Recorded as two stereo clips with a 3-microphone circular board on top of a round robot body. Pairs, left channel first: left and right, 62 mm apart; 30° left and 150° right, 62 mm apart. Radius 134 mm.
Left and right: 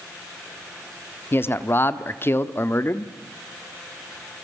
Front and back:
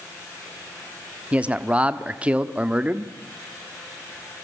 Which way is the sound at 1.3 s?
140° left.